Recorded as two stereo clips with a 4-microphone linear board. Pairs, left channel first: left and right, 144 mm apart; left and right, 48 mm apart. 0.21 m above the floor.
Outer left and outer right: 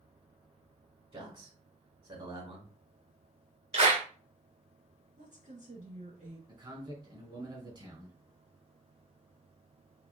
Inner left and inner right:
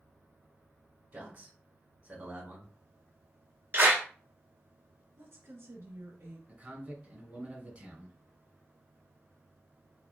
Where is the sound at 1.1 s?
40° right (ahead or behind), 2.5 m.